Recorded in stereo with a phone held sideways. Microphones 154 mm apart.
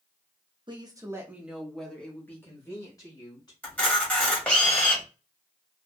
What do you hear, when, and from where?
0.7 s a woman speaking: 30° right (ahead or behind), 0.9 m; by 3.5 s 30° left (ahead or behind), 1.9 m
3.6 s a camera shutter: 10° left (ahead or behind), 1.5 m